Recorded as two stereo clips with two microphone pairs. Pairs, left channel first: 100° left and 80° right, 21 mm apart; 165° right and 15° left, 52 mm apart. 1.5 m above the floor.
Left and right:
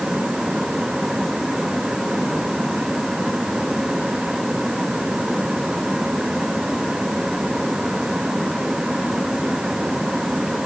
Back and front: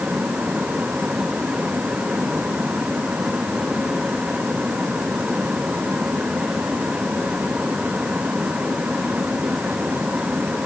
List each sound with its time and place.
Only background noise.